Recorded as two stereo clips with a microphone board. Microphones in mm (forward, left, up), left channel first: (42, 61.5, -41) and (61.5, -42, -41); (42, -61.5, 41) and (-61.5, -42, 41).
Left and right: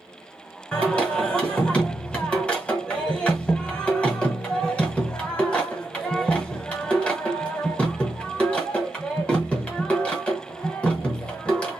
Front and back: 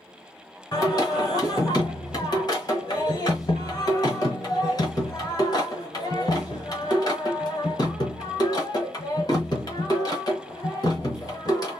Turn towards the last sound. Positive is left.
turn(degrees=25)